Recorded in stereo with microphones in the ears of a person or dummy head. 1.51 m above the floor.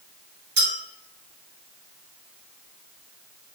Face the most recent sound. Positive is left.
turn(degrees=-50)  # may be behind; listen again after turning